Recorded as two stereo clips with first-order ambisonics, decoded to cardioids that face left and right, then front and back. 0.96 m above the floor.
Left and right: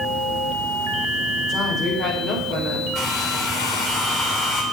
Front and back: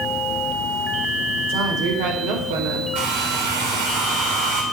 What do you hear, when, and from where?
1.5 s a woman speaking: 165° left, 4.5 m
3.0 s a hair dryer: 155° left, 3.5 m